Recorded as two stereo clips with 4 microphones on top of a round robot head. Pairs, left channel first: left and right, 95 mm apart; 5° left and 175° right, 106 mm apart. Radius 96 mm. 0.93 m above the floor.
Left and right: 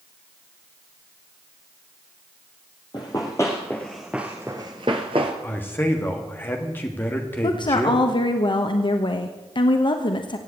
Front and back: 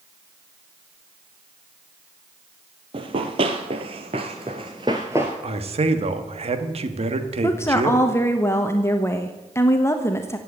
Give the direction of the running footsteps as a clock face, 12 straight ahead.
7 o'clock.